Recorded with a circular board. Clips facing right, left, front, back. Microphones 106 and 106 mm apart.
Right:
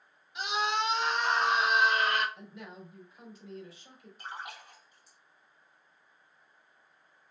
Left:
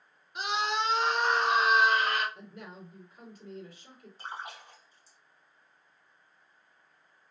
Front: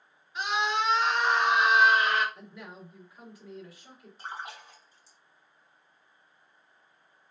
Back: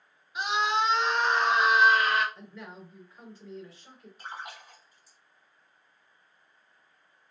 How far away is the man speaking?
About 3 m.